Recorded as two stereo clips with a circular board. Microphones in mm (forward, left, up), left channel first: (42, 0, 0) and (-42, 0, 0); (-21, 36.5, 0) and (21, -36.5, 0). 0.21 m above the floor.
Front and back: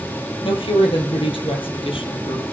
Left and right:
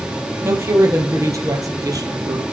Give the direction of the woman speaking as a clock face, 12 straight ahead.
12 o'clock.